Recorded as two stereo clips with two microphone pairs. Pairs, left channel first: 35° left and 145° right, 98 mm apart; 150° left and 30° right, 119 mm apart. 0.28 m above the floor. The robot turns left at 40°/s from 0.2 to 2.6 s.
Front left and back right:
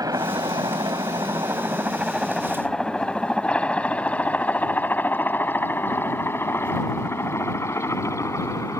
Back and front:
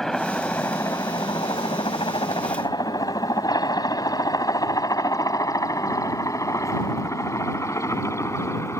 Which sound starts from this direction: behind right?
A helicopter, at 0.0 s.